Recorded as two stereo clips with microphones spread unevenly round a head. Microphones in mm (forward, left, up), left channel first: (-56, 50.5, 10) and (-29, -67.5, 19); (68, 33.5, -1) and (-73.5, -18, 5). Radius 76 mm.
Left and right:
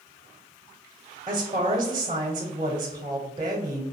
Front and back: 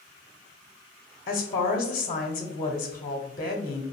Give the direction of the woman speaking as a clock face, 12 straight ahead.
1 o'clock.